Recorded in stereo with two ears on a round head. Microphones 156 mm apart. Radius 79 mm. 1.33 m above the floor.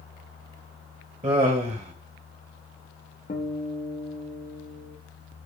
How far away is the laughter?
About 1.6 m.